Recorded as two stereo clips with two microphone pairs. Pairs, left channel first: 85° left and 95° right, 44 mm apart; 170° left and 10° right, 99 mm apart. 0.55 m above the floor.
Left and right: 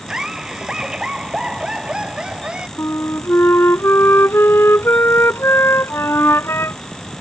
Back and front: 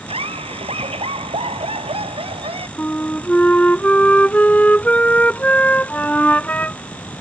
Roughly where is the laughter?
Ahead.